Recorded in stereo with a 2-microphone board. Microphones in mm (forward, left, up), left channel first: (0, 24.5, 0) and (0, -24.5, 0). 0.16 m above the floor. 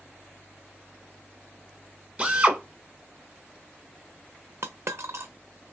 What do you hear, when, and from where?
2.2 s a drill: 20° right (ahead or behind), 1.0 m
4.6 s a dropped coin: 55° right (ahead or behind), 0.7 m